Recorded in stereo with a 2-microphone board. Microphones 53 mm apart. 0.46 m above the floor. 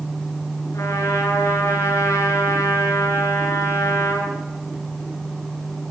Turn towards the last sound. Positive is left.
turn(degrees=60)  # may be behind; listen again after turning